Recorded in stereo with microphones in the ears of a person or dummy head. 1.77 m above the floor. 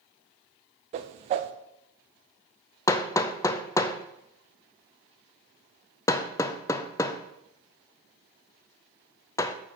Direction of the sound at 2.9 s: 15° left (ahead or behind).